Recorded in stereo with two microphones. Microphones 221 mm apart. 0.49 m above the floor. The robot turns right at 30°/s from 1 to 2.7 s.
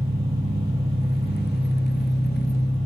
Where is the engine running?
30° right, 1.0 m; by 2.9 s 20° left, 1.0 m.